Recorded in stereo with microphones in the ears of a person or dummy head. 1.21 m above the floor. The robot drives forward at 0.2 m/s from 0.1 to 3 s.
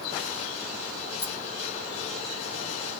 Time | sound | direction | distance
1.2 | a rattle | 75° left (ahead or behind) | 1.8 m